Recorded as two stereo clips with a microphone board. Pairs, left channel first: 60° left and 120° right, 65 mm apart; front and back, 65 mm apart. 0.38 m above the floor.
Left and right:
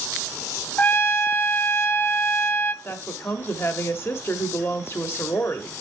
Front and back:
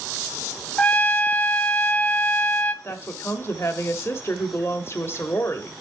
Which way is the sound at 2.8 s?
30° left.